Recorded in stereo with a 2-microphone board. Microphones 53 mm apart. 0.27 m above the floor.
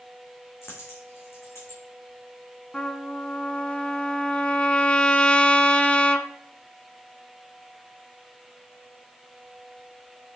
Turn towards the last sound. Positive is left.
turn(degrees=20)  # may be behind; listen again after turning